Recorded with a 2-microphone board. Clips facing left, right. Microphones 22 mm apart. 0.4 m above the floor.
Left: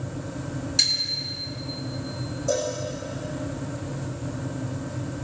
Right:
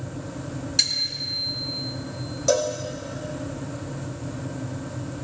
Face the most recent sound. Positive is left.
turn(degrees=-85)